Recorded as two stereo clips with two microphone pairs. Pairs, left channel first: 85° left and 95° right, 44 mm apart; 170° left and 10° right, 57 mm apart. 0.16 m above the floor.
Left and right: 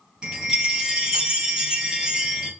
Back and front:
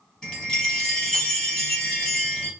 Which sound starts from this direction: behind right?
A chime, at 0.2 s.